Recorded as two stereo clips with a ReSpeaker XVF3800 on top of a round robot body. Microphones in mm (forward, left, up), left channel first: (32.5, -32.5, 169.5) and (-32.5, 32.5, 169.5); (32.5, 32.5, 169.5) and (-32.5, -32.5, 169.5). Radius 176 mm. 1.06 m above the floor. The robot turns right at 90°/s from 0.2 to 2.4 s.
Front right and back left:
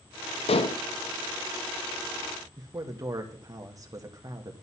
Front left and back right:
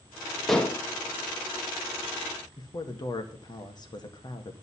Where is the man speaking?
85° left, 2 m.